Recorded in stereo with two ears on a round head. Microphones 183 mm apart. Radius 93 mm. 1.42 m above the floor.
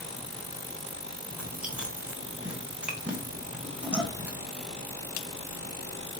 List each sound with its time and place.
1.3 s chewing: 5° right (ahead or behind), 1.3 m